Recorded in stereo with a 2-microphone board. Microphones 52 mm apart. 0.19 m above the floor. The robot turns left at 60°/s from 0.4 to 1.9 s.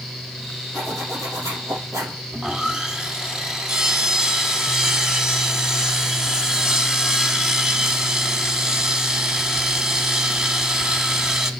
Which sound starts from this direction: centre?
Sawing, at 2.3 s.